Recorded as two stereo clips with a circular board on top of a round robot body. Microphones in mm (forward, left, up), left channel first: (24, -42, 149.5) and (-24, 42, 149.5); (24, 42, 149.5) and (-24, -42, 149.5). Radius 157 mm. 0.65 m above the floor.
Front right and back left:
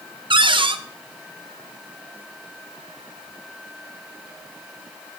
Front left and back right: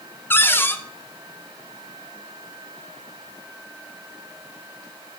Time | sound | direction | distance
0.3 | a cupboard door | 125° left | 0.7 m